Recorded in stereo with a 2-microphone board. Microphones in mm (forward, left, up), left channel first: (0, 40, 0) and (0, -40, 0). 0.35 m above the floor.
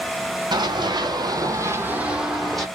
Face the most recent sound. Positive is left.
turn(degrees=5)  # may be behind; listen again after turning